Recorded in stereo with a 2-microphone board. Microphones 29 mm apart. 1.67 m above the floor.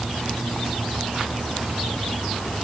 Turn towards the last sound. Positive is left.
No sound to turn to.